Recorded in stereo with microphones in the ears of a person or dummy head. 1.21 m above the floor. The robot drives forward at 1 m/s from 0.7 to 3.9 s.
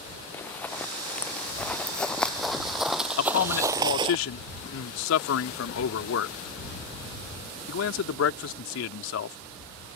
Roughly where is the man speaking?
Left.